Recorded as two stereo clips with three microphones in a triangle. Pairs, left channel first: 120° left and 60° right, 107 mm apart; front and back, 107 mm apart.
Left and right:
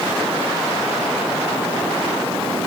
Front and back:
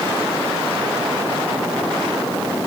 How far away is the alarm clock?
I don't hear an alarm clock.